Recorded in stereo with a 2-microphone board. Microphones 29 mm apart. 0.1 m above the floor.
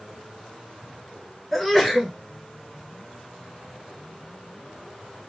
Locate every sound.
1.5 s a sneeze: centre (ahead or behind), 1.1 m